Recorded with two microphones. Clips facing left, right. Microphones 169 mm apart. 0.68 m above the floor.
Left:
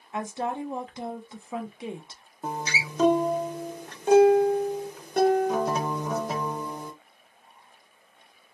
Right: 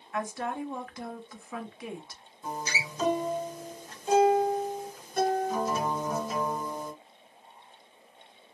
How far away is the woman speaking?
About 0.6 m.